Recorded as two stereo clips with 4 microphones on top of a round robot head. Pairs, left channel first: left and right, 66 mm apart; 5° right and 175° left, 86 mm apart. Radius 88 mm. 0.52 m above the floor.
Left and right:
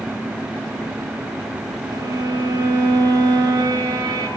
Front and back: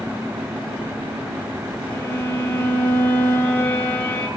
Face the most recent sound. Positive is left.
turn(degrees=-80)